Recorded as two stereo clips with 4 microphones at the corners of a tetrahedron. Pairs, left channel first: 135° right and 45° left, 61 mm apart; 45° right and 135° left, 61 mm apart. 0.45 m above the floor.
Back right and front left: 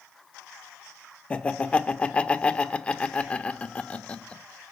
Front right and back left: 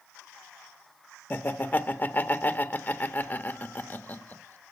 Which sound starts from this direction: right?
Laughter, at 1.3 s.